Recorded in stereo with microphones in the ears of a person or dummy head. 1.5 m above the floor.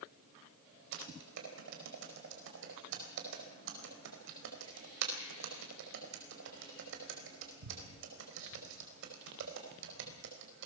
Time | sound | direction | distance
0.9 | typing on a keyboard | 70° right (ahead or behind) | 4 m